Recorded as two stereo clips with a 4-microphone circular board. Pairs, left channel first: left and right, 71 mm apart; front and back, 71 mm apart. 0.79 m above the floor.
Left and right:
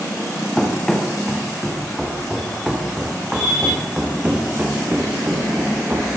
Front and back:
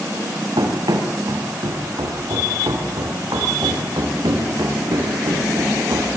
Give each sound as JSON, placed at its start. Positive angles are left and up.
{"t": 0.6, "sound": "running footsteps", "azimuth_deg": 170, "distance_m": 5.0}